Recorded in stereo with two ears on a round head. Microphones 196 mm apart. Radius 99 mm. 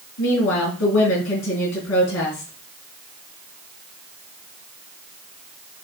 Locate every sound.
0.2 s a woman speaking: 65° left (ahead or behind), 6 m